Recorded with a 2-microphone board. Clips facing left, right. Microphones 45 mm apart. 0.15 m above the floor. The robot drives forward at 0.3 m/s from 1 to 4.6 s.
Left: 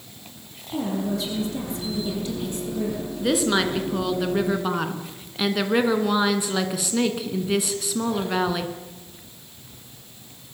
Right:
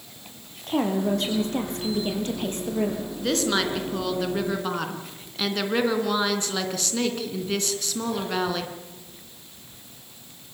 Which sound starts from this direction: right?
A woman speaking, at 0.7 s.